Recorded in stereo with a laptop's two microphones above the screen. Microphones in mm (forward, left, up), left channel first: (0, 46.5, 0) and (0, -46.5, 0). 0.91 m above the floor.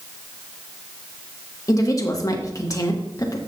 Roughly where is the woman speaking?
Left.